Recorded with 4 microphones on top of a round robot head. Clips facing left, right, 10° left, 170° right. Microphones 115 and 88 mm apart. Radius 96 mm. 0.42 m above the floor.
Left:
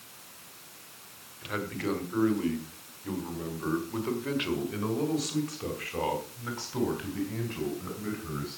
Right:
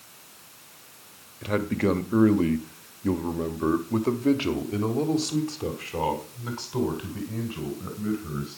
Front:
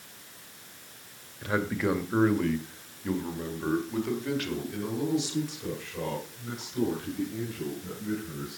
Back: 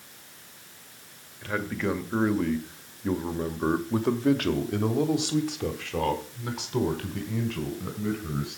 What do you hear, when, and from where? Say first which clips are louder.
1.4 s a man speaking: right 8 dB, front 1 dB; 65° right, 2.0 m; by 8.6 s 170° right, 4.5 m